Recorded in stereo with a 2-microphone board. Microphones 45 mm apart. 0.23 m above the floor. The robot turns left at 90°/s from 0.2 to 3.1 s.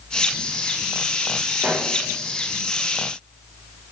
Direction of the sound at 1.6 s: 45° right (ahead or behind).